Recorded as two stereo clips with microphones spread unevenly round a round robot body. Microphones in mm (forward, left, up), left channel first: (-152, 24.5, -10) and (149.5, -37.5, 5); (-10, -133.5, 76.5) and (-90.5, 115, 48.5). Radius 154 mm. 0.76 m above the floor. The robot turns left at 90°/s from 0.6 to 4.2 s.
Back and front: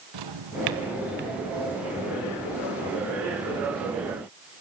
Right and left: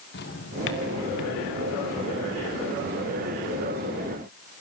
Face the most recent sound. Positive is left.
turn(degrees=20)